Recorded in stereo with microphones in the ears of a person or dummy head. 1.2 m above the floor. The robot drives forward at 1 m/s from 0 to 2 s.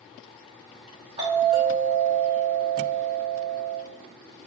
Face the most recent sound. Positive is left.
turn(degrees=-15)  # may be behind; listen again after turning